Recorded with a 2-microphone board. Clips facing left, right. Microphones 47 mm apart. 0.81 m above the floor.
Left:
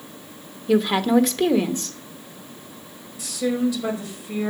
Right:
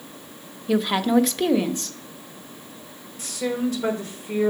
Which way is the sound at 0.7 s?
Centre (ahead or behind).